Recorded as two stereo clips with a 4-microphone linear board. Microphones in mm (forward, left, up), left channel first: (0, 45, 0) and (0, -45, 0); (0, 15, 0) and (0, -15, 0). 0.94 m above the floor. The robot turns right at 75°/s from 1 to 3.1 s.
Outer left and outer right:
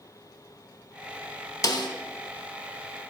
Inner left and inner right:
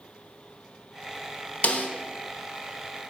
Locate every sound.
1.6 s a snare drum: 45° left (ahead or behind), 0.9 m; by 1.9 s 55° left (ahead or behind), 0.9 m